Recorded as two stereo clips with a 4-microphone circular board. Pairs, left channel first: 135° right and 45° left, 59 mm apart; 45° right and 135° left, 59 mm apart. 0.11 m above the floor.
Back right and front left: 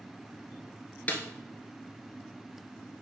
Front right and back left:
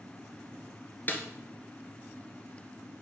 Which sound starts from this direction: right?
A snare drum, at 1.1 s.